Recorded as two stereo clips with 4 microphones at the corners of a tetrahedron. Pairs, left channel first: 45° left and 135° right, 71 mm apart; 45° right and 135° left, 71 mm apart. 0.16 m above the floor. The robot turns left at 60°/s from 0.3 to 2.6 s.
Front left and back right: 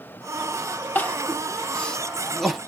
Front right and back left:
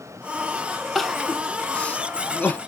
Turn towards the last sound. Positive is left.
turn(degrees=-55)